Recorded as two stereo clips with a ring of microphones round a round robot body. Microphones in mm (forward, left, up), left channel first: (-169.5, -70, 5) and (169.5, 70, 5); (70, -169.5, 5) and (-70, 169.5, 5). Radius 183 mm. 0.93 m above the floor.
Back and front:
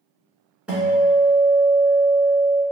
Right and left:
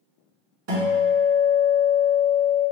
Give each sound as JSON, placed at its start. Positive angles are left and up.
{"t": 0.7, "sound": "a guitar", "azimuth_deg": 110, "distance_m": 1.6}